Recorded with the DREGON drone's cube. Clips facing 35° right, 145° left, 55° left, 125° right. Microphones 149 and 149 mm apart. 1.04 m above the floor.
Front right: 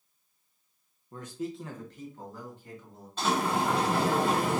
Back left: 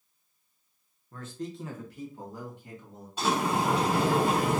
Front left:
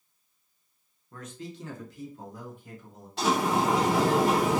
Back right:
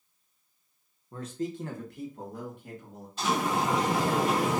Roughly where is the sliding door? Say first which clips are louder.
Back left 1 dB, front left 3 dB; ahead left.